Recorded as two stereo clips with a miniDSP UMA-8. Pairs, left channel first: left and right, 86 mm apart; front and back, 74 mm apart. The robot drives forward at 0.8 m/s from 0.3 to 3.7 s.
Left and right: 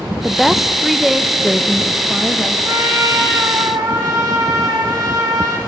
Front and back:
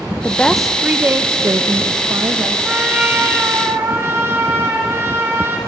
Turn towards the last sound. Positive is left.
turn(degrees=-130)